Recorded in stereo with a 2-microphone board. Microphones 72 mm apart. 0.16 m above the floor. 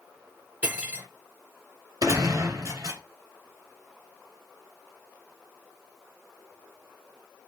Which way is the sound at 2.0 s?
55° right (ahead or behind).